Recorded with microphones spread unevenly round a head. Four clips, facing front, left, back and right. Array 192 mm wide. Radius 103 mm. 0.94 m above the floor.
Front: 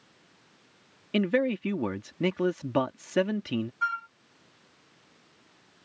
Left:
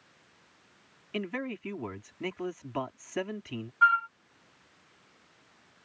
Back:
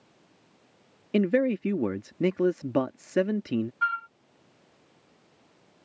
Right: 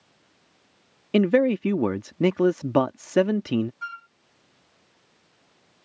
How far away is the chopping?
No chopping in this recording.